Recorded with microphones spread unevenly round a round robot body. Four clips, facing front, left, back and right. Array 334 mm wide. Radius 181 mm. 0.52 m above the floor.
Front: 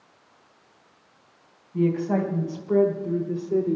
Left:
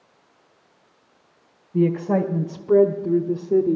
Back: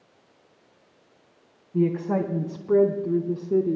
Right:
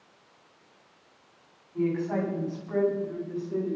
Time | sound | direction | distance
1.7 | a woman speaking | 115° left | 2 m